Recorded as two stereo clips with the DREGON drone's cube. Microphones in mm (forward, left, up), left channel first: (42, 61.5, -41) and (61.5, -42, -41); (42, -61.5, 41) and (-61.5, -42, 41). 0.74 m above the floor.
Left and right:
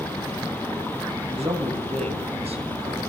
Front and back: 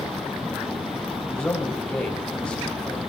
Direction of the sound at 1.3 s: 90° right.